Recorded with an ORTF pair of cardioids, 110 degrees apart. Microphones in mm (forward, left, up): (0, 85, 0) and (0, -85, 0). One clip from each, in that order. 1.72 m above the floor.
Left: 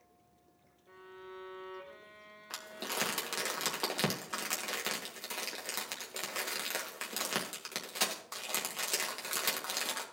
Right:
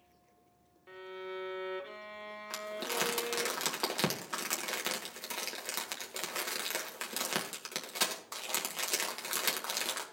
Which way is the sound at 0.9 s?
55° right.